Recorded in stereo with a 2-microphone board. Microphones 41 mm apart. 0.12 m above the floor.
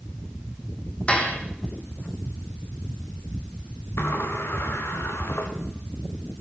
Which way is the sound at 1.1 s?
35° left (ahead or behind).